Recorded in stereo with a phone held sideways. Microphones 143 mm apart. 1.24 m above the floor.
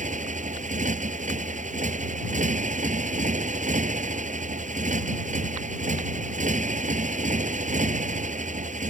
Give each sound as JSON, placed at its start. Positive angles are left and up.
{"t": 0.0, "sound": "a motorcycle", "side_deg": -60}